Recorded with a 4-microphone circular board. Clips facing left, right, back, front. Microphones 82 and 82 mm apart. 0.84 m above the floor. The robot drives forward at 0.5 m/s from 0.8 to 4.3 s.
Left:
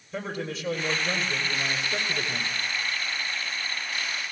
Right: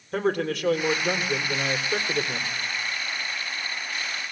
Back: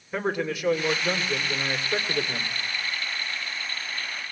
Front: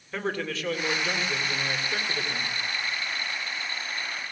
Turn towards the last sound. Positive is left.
turn(degrees=-135)